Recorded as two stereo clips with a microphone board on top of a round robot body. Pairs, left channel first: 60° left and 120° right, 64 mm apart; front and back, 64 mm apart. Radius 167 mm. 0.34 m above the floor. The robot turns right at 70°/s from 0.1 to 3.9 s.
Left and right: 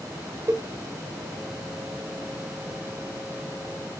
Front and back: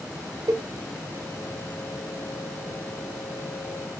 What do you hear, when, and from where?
0.5 s a cowbell: 165° right, 0.8 m; by 0.7 s 150° right, 0.8 m